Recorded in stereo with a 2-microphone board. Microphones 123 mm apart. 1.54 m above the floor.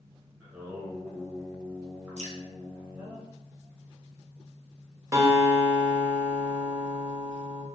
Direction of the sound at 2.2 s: 65° right (ahead or behind).